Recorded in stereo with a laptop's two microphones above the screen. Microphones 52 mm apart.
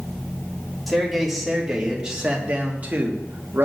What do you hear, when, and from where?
0.9 s a man speaking: centre (ahead or behind), 2 m; by 3.6 s 45° right (ahead or behind), 1.5 m